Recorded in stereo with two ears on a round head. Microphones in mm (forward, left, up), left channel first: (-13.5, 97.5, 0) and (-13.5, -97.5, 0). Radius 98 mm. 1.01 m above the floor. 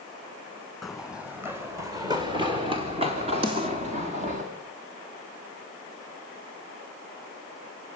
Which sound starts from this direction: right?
A snare drum, at 3.4 s.